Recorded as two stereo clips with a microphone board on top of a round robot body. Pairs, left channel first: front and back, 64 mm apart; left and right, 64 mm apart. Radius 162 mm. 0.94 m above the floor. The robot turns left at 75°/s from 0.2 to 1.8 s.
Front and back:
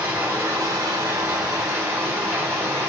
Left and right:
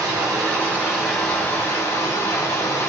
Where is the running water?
115° right, 1.9 m; by 2.9 s 125° left, 1.9 m.